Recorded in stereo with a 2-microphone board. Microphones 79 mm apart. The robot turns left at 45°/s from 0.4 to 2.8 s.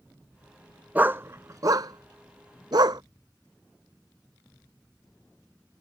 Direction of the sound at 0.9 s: 20° right (ahead or behind).